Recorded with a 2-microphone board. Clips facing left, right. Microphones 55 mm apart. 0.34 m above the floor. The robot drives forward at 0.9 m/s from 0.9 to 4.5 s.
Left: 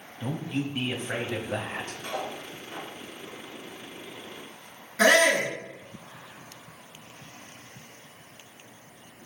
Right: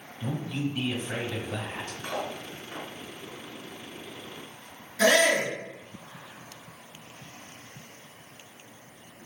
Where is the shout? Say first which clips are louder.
Left 2 dB; 30° left (ahead or behind), 5 m.